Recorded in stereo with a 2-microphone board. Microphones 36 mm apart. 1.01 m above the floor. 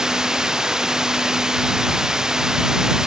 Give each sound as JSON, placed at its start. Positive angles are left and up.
{"t": 0.0, "sound": "running water", "side_deg": -15}